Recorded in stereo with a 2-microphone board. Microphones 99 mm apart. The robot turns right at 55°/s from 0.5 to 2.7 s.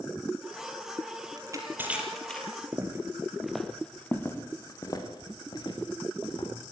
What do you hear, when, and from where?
1.4 s crushing: 40° right (ahead or behind), 4.5 m; by 2.6 s 25° left (ahead or behind), 4.5 m
2.7 s footsteps: 30° right (ahead or behind), 2.5 m; by 6.5 s 55° left (ahead or behind), 5.5 m